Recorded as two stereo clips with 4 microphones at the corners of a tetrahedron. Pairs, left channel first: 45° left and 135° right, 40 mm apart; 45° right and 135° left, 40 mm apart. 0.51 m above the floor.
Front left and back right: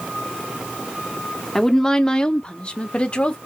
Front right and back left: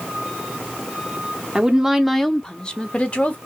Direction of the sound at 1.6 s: 115° left.